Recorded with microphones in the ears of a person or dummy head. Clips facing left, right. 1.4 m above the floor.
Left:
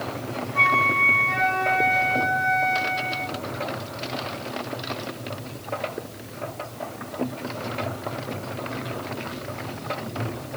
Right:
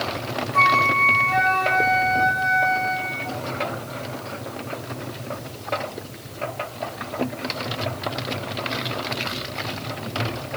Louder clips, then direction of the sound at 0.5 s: Right 4 dB; 80° right.